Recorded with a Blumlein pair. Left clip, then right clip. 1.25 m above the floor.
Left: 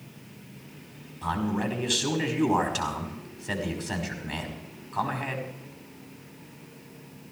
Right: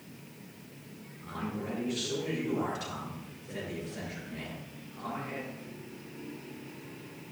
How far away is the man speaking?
About 5 m.